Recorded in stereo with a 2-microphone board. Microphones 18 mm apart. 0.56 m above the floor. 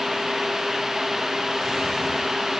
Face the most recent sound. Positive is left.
No sound to turn to.